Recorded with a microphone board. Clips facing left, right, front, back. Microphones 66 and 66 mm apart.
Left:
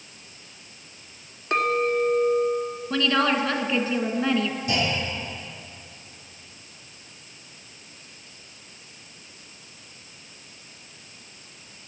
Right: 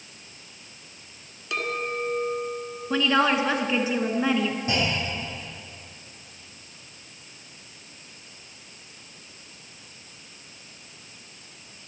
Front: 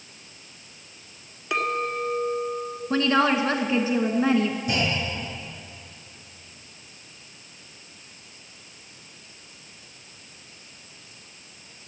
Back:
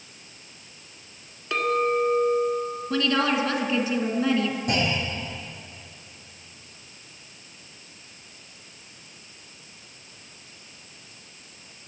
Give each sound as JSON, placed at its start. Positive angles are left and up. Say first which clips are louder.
{"t": 1.5, "sound": "a clink", "louder": "left 7 dB, back 3 dB", "azimuth_deg": 75, "distance_m": 1.2}
{"t": 2.9, "sound": "a woman speaking", "louder": "right 1 dB, front 3 dB", "azimuth_deg": -25, "distance_m": 1.2}
{"t": 4.7, "sound": "a clunk", "louder": "even, even", "azimuth_deg": -150, "distance_m": 6.0}